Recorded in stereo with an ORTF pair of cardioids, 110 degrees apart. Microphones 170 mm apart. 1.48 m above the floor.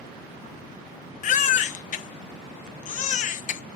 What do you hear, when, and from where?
1.2 s a baby crying: 50° left, 0.7 m